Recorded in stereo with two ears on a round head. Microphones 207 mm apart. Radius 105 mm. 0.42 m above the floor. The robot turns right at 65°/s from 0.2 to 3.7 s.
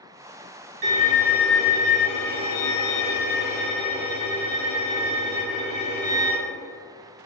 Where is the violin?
40° right, 1.1 m; by 6.4 s 145° left, 1.1 m.